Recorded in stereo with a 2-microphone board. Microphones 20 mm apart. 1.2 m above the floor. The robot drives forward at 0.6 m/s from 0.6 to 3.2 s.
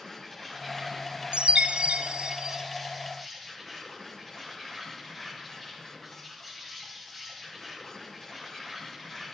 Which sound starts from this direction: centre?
An insect, at 0.0 s.